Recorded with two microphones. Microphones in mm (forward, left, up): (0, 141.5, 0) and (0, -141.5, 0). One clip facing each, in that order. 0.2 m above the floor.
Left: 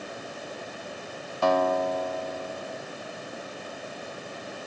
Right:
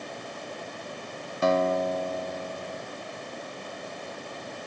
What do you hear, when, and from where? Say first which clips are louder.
1.4 s a guitar: even; 20° right (ahead or behind), 1.6 m